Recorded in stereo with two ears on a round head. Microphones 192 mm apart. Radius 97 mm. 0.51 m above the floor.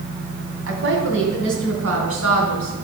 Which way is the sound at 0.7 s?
65° right (ahead or behind).